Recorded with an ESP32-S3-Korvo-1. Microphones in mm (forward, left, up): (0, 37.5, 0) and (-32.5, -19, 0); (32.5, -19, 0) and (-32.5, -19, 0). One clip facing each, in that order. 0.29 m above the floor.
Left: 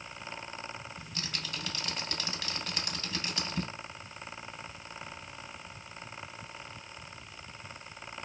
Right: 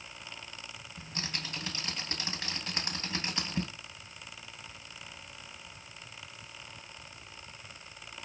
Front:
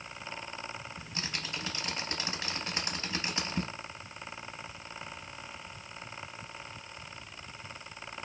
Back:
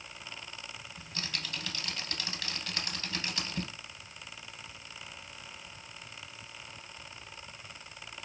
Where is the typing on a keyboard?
65° right, 0.5 m.